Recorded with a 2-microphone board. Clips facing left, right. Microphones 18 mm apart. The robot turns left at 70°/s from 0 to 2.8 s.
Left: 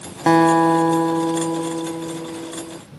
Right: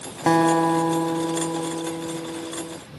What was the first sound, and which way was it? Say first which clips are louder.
A guitar: left 4 dB; 15° left (ahead or behind).